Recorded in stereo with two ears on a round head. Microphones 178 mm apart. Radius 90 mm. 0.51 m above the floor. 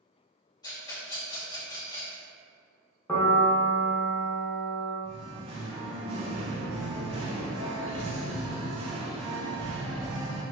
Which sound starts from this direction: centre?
A piano, at 3.1 s.